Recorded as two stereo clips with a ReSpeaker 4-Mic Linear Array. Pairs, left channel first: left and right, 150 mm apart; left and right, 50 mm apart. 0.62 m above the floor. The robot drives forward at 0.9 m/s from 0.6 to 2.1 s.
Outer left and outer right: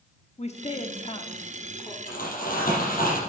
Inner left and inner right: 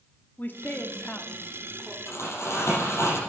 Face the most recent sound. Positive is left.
turn(degrees=70)  # may be behind; listen again after turning